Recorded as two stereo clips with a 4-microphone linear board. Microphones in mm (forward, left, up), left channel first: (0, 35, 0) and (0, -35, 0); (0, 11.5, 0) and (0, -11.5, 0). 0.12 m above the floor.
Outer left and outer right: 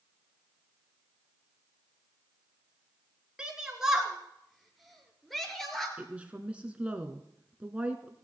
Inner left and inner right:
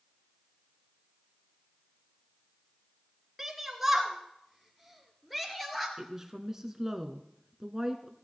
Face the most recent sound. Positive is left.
turn(degrees=-15)  # may be behind; listen again after turning